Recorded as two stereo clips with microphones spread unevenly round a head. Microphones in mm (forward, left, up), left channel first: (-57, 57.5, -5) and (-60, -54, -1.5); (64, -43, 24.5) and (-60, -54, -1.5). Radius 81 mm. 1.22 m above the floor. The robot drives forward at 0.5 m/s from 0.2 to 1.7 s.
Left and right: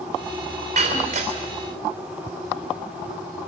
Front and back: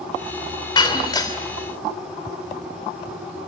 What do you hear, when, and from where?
0.8 s breaking glass: 45° right, 3 m; by 1.4 s 50° right, 3 m